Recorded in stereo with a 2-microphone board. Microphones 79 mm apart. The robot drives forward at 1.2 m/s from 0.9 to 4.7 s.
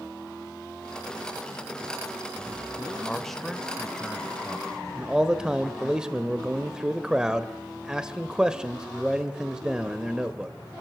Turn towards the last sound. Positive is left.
turn(degrees=-10)  # may be behind; listen again after turning